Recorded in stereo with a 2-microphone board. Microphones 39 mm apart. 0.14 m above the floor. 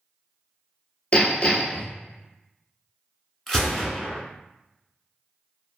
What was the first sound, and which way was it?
Hammering, 35° left (ahead or behind).